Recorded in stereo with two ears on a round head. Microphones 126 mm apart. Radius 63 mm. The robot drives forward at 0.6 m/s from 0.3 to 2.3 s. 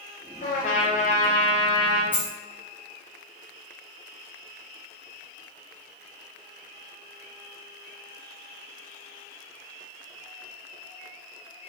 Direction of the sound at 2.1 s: 15° left (ahead or behind).